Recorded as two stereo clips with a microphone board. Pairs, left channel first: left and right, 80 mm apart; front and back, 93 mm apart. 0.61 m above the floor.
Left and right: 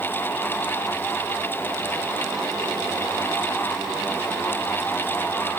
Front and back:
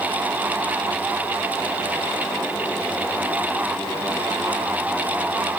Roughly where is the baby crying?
I don't hear a baby crying.